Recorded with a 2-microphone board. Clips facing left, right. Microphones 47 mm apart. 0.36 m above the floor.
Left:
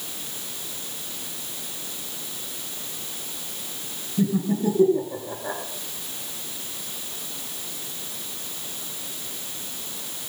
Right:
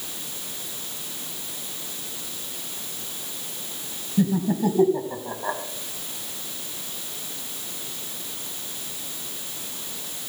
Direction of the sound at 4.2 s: 55° right (ahead or behind).